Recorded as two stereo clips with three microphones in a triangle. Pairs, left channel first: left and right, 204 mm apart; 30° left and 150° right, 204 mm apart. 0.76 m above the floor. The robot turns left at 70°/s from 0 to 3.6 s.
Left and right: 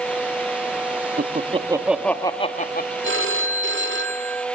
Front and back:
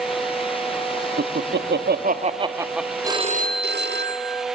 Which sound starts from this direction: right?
A phone ringing, at 3.0 s.